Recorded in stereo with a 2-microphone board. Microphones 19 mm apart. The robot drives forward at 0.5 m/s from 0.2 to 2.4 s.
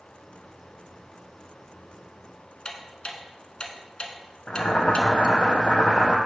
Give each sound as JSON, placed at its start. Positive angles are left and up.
{"t": 2.6, "sound": "ticking", "side_deg": 50, "distance_m": 0.9}
{"t": 4.5, "sound": "boiling", "side_deg": 60, "distance_m": 1.1}